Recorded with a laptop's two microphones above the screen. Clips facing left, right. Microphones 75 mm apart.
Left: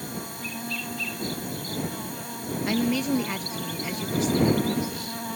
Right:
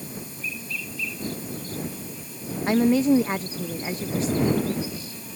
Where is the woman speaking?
30° right (ahead or behind).